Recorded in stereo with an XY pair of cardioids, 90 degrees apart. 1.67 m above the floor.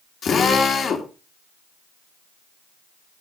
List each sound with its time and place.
0.2 s a drill: 60° left, 2.5 m